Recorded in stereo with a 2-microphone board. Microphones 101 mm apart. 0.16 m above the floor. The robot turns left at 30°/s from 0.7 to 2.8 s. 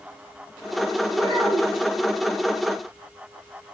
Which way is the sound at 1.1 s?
55° right (ahead or behind).